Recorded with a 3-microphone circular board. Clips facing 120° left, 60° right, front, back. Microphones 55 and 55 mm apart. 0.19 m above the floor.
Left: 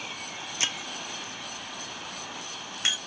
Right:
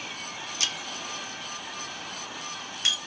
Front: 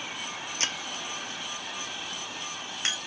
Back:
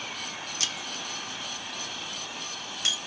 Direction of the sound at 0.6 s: 55° left.